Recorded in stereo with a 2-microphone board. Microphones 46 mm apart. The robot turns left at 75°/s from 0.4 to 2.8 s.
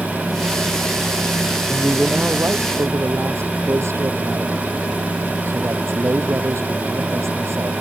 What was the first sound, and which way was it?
A man speaking, 5° left.